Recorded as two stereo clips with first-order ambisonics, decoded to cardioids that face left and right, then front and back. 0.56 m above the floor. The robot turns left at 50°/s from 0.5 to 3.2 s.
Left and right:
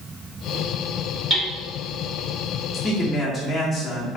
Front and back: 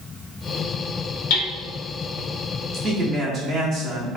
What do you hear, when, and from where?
1.3 s hammering: straight ahead, 1.4 m; by 1.5 s 10° right, 1.4 m
2.7 s a man speaking: 165° left, 1.1 m; by 4.2 s 140° left, 1.1 m